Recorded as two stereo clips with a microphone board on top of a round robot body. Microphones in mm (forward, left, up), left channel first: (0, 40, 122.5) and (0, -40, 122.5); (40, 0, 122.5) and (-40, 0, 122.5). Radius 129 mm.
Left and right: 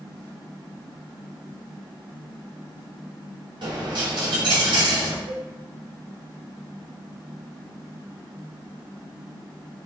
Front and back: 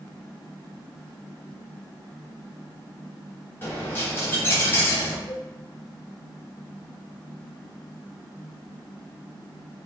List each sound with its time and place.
3.6 s a dropped coin: 60° right, 1.3 m
5.3 s a cowbell: 75° right, 1.1 m